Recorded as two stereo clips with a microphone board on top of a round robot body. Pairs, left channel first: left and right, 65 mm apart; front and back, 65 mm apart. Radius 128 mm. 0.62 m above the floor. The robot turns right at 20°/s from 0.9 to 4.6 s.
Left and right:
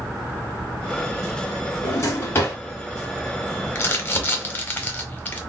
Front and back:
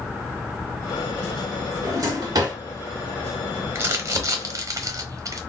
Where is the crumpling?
135° left, 0.9 m; by 5.4 s 150° left, 0.9 m.